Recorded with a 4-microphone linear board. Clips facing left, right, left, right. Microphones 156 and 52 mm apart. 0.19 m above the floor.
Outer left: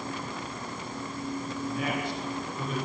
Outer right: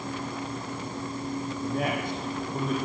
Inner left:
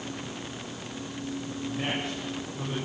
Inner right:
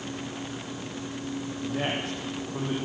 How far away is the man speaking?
About 10 m.